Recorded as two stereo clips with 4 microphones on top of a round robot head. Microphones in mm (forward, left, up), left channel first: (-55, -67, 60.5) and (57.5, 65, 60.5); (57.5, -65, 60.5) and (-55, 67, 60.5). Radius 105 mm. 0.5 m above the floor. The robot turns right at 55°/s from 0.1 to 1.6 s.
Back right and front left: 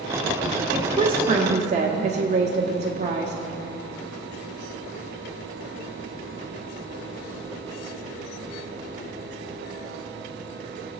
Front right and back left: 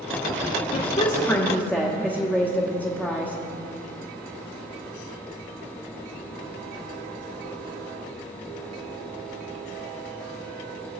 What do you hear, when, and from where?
0.7 s a woman speaking: 20° right, 1.2 m; by 3.4 s 30° left, 1.2 m